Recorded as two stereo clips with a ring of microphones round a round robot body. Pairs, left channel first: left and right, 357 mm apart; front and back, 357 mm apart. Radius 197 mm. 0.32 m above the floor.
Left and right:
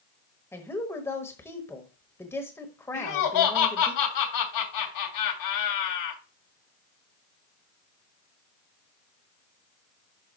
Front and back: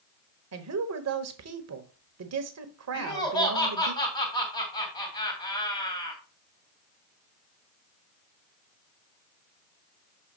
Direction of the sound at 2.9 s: 75° left.